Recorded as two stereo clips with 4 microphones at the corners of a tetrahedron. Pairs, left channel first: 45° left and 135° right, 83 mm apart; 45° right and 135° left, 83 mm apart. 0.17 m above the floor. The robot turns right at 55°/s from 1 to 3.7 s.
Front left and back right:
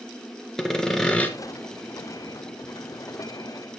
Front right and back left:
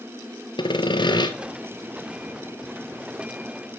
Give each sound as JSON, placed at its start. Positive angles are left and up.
{"t": 0.6, "sound": "sawing", "azimuth_deg": -40, "distance_m": 1.5}